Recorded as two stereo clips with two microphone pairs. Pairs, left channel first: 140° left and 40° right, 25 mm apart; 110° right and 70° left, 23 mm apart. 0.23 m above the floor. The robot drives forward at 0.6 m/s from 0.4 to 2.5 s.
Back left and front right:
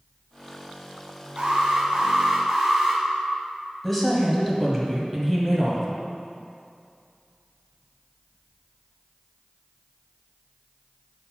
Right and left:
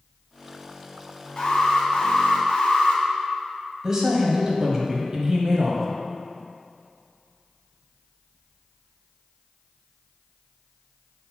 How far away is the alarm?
About 1.5 m.